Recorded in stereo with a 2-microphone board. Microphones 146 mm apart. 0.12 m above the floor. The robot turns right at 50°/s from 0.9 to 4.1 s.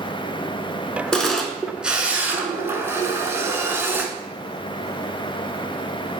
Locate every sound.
1.1 s a camera shutter: 5° left (ahead or behind), 0.5 m; by 4.1 s 15° right (ahead or behind), 0.5 m